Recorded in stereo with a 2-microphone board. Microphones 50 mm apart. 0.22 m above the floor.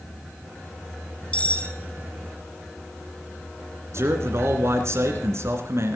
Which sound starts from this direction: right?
A man speaking, at 3.9 s.